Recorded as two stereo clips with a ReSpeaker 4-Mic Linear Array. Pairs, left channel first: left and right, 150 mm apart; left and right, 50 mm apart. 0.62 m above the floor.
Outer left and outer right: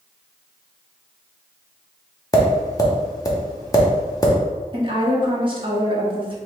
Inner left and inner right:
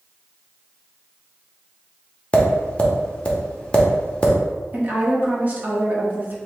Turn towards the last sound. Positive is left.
turn(degrees=-35)  # may be behind; listen again after turning